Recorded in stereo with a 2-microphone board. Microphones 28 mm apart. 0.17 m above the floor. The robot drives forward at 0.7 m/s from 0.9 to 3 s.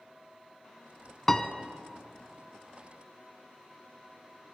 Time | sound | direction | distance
1.3 | a piano | 15° left (ahead or behind) | 0.7 m